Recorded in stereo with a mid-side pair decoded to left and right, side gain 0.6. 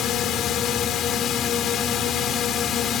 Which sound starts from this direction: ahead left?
A drone, at 0.0 s.